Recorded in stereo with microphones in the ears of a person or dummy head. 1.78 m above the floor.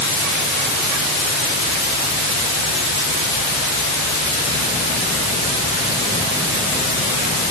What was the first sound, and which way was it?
Only background noise.